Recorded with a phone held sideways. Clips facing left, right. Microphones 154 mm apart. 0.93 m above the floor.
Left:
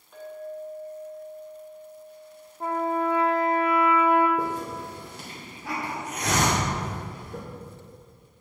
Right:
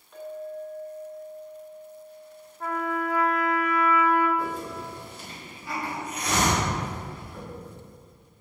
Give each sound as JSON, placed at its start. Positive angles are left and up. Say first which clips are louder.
{"t": 0.1, "sound": "a clink", "louder": "right 1 dB", "side_deg": 0, "distance_m": 3.0}
{"t": 2.6, "sound": "a trumpet", "louder": "left 3 dB", "side_deg": 25, "distance_m": 0.7}
{"t": 4.4, "sound": "a hiss", "louder": "left 2 dB", "side_deg": 70, "distance_m": 2.0}